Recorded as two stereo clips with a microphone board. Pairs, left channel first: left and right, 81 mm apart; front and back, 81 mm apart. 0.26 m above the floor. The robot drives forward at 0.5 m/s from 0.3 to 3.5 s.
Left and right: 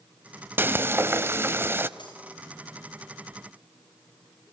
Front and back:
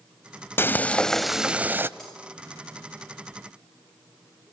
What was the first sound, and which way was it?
Frying, 45° right.